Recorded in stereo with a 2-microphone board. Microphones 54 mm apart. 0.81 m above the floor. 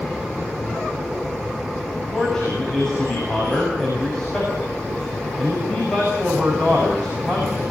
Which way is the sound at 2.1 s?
15° left (ahead or behind).